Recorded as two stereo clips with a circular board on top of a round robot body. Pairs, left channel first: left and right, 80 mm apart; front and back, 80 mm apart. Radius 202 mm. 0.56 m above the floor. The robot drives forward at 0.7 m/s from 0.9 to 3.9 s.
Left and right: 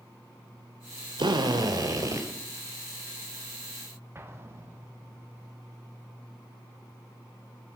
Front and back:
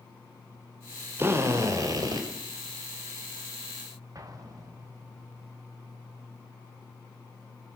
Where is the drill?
115° right, 1.2 m; by 2.3 s 140° right, 1.6 m.